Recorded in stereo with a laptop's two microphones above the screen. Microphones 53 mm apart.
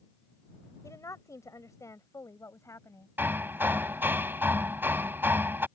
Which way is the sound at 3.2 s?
45° right (ahead or behind).